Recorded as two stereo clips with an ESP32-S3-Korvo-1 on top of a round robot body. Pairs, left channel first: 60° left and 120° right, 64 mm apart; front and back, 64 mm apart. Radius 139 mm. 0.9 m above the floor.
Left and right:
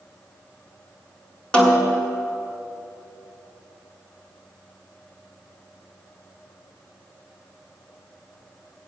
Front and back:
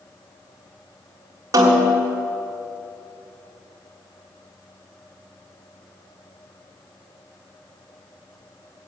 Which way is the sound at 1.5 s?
135° left.